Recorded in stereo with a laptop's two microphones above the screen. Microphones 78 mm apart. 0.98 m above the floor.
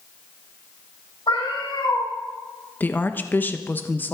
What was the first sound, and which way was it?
A cat meowing, 85° left.